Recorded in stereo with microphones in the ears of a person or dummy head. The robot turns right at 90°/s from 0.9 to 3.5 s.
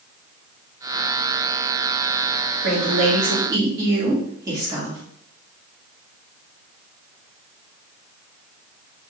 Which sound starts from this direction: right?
A woman speaking, at 2.6 s.